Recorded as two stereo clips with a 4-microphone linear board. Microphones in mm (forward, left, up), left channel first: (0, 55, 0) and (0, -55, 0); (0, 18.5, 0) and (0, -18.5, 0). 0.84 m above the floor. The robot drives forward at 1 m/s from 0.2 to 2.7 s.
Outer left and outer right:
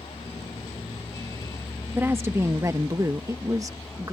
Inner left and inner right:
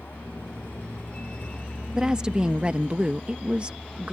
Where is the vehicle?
55° left (ahead or behind); by 4.1 s 30° left (ahead or behind).